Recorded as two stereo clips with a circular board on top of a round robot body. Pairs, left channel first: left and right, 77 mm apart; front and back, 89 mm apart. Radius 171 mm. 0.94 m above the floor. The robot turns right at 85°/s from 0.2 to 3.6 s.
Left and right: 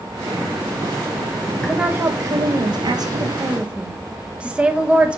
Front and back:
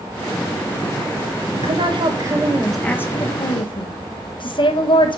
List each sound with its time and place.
1.5 s a woman speaking: 170° left, 1.5 m; by 5.2 s 15° right, 1.5 m